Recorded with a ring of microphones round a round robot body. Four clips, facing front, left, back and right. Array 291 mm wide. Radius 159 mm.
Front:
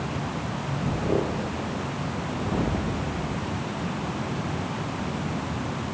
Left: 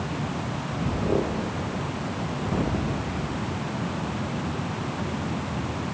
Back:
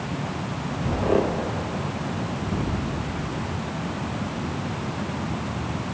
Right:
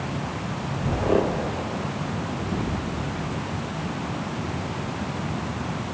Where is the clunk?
No clunk in this recording.